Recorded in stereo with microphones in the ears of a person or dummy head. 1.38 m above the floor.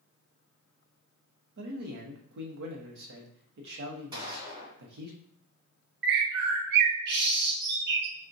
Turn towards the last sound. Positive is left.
turn(degrees=-65)  # may be behind; listen again after turning